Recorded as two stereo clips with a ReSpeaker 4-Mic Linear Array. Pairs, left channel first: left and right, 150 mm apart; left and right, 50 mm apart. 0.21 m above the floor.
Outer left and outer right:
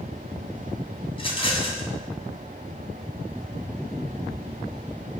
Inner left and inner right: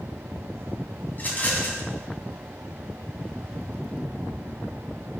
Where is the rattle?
35° left (ahead or behind), 2.0 m.